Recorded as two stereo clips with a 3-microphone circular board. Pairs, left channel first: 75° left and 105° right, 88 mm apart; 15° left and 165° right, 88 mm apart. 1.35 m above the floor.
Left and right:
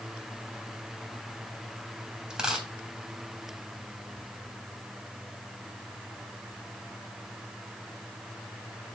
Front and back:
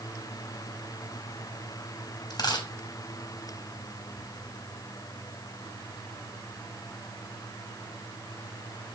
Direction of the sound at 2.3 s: 25° right.